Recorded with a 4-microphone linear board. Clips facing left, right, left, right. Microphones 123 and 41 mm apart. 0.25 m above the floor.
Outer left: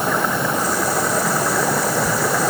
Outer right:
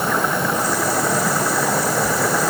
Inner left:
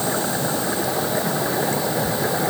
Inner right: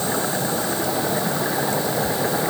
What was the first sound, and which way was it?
Only background noise.